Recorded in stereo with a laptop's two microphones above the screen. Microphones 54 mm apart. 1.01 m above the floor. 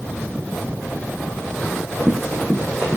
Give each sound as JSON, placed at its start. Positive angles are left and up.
{"t": 1.6, "sound": "running footsteps", "side_deg": 5, "distance_m": 5.5}